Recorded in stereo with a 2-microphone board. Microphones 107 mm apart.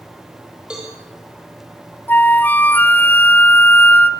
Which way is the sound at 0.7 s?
5° right (ahead or behind).